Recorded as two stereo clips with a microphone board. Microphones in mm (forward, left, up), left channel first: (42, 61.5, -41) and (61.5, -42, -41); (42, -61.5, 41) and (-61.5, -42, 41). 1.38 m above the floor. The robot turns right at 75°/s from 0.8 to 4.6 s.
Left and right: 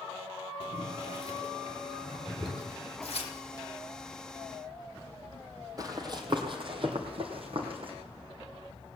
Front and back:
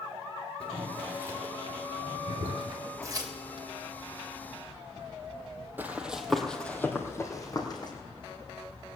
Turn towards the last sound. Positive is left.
turn(degrees=-55)